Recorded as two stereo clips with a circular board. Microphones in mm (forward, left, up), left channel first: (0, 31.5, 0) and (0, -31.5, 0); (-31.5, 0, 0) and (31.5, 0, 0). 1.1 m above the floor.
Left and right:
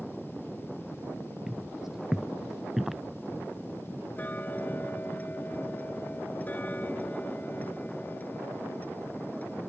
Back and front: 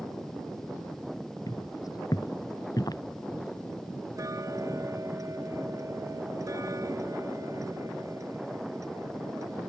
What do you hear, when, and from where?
1.5 s footsteps: 175° right; by 3.0 s straight behind
4.2 s ticking: 30° left